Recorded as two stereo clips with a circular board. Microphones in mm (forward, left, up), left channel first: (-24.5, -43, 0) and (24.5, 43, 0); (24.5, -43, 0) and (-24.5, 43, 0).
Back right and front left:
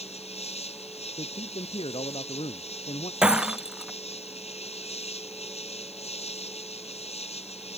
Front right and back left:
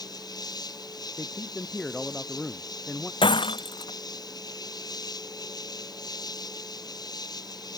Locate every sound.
0.0 s an insect: 110° right
1.2 s a man speaking: 145° right
3.2 s breaking glass: 25° right